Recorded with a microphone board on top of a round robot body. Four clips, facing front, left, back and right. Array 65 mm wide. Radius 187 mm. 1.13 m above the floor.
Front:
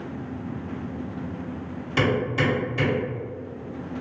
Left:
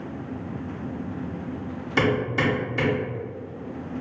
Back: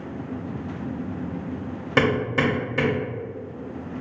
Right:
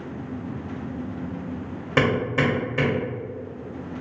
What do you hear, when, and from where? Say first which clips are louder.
2.0 s hammering: right 1 dB, back 2 dB; 140° right, 1.7 m